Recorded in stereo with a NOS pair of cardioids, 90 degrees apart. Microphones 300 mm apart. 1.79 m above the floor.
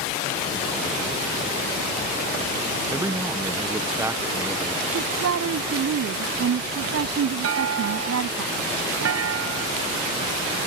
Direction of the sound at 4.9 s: 55° right.